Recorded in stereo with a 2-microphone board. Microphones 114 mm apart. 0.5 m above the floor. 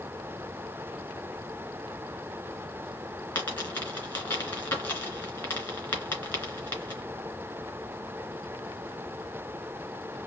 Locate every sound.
3.4 s a dropped coin: 20° left (ahead or behind), 2.5 m